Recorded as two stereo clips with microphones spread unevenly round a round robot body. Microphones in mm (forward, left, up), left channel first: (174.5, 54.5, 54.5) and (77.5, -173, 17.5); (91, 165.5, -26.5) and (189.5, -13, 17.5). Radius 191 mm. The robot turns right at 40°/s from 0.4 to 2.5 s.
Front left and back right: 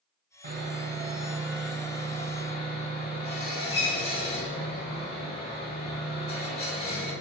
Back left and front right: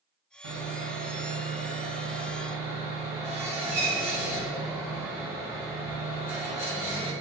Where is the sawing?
65° right, 1.7 m; by 7.1 s 20° left, 1.7 m.